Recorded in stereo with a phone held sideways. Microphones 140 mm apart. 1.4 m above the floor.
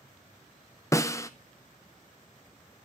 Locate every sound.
0.9 s a snare drum: 20° left (ahead or behind), 0.5 m